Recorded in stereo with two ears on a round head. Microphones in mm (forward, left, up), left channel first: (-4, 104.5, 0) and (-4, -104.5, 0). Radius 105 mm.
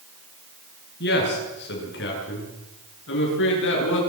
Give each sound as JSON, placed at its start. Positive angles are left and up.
{"t": 1.0, "sound": "a man speaking", "side_deg": 50, "distance_m": 8.5}